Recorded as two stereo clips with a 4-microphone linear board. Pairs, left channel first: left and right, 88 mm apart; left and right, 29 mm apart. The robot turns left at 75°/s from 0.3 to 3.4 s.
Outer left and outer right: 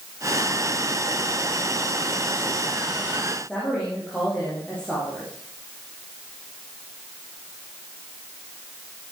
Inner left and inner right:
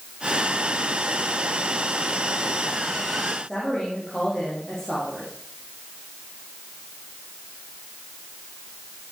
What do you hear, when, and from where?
3.5 s a woman speaking: 10° left (ahead or behind), 7.5 m